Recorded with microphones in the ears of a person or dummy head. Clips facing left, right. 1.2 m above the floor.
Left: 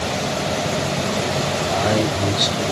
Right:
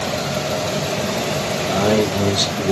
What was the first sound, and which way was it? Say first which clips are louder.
A man speaking: right 4 dB; 75° right (ahead or behind).